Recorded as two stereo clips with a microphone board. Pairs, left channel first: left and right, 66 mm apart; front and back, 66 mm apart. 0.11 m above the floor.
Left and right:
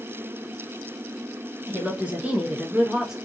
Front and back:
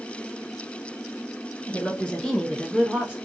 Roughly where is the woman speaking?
Ahead right.